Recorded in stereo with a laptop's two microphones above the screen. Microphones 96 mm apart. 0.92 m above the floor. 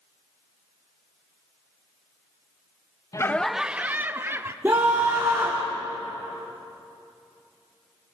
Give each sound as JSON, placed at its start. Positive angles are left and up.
{"t": 3.1, "sound": "laughter", "side_deg": 35, "distance_m": 0.5}
{"t": 4.6, "sound": "a scream", "side_deg": -20, "distance_m": 2.5}